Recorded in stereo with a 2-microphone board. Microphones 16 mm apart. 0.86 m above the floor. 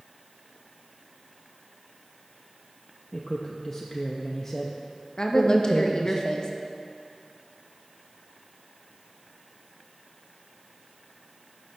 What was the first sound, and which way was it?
A man speaking, 15° left (ahead or behind).